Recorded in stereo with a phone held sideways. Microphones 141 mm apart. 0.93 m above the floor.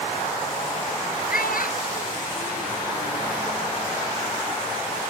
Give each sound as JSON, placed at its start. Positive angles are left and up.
{"t": 1.3, "sound": "a child speaking", "side_deg": 85}